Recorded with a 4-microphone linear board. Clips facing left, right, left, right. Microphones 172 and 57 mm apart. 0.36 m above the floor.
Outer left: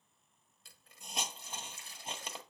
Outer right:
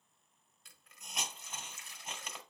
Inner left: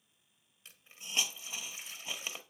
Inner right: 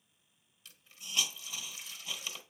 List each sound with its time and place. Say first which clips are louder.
0.7 s a hiss: outer left 3 dB, even; 30° left (ahead or behind), 1.3 m